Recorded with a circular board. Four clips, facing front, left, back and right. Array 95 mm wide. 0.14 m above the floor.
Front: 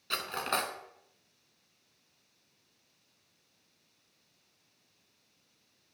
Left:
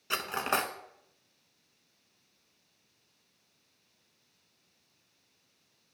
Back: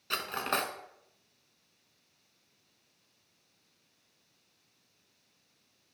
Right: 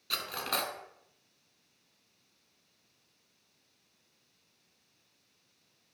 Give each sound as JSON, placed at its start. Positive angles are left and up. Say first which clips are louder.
{"t": 0.1, "sound": "cutlery clinking", "louder": "left 5 dB, back 1 dB", "azimuth_deg": 100, "distance_m": 0.6}